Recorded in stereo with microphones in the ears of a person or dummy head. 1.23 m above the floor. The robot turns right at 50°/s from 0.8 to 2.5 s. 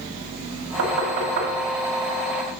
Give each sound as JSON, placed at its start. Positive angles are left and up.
{"t": 0.8, "sound": "knocking", "side_deg": -85, "distance_m": 2.0}